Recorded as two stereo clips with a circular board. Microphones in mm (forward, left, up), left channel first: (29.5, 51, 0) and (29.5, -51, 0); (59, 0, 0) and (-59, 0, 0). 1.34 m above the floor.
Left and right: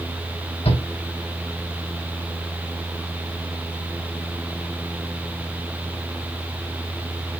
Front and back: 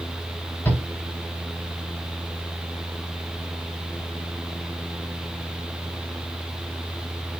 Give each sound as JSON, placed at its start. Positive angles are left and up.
{"t": 0.7, "sound": "a shout", "azimuth_deg": 75, "distance_m": 4.5}